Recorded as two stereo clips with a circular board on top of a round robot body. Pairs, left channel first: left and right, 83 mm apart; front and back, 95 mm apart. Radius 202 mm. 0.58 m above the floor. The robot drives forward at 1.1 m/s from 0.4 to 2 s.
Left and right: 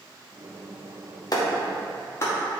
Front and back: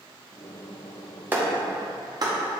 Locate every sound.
1.3 s a clap: 115° left, 1.4 m; by 2.4 s 140° left, 1.8 m